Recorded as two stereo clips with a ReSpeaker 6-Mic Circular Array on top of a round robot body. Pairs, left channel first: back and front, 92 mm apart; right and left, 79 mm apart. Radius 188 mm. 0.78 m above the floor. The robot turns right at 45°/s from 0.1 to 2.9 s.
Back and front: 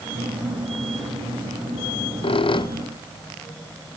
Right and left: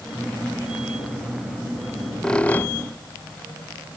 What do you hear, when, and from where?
1.9 s a squeak: 170° left, 0.8 m; by 3.0 s 145° right, 0.8 m